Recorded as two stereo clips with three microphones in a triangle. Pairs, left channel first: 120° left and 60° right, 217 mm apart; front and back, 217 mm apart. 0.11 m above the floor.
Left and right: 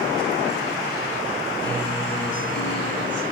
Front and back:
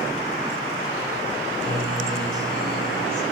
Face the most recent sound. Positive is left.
turn(degrees=85)